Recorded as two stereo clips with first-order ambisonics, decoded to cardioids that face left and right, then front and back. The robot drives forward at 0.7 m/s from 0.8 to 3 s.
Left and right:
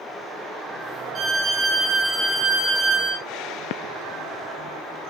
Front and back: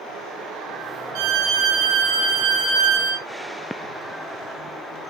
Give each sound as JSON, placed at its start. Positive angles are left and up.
{"t": 1.1, "sound": "a violin", "azimuth_deg": -160, "distance_m": 0.6}